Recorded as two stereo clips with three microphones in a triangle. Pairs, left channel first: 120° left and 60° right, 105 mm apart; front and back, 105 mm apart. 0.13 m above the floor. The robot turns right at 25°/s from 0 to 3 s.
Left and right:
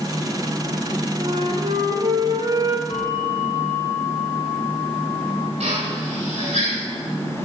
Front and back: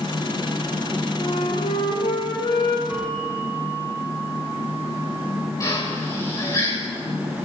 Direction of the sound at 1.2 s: 40° right.